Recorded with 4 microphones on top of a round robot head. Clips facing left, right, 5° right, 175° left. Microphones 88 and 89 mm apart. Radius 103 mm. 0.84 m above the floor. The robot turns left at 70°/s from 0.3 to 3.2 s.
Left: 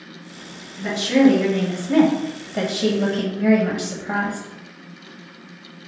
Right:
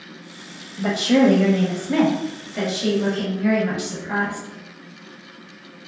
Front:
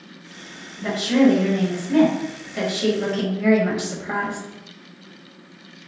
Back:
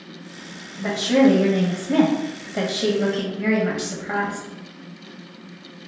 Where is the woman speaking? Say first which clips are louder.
Left 1 dB, even; 115° right, 0.7 m; by 4.4 s 75° left, 0.7 m.